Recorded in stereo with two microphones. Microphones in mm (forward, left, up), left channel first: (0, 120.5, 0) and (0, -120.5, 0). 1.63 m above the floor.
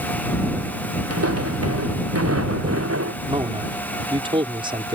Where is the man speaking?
20° right (ahead or behind).